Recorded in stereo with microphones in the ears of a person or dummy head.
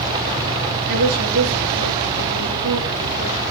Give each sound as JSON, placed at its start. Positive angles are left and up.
{"t": 0.9, "sound": "a woman speaking", "side_deg": -70, "distance_m": 6.5}